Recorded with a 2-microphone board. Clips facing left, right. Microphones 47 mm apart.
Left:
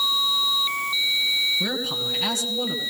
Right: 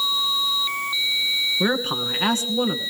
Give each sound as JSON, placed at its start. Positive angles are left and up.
{"t": 1.6, "sound": "a man speaking", "side_deg": -35, "distance_m": 2.0}